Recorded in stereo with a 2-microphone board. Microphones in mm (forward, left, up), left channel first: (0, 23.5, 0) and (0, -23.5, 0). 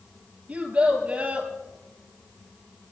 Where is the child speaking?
35° right (ahead or behind), 3.5 m.